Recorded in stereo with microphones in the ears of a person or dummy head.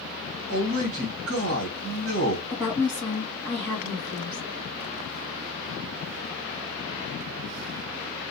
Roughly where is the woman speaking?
Centre.